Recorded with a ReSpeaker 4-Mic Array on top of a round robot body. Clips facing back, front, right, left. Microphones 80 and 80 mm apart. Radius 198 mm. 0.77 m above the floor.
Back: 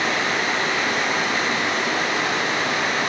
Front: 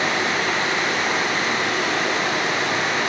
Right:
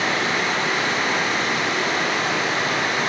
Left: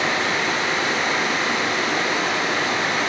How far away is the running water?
About 4 m.